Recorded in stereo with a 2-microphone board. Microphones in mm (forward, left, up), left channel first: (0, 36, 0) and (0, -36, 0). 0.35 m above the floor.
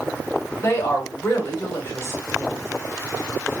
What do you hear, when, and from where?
0.6 s a woman speaking: 35° left (ahead or behind), 2 m